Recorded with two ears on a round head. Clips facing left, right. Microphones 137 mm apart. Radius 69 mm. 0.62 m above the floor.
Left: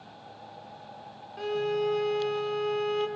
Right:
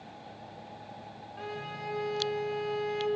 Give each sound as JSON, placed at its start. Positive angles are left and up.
{"t": 1.4, "sound": "a violin", "side_deg": 45, "distance_m": 0.7}